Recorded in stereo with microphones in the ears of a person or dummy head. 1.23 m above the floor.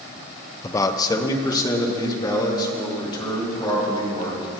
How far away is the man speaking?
About 0.7 m.